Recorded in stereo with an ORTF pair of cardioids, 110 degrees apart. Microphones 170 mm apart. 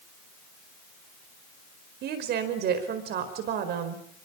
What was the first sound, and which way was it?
A woman speaking, 70° right.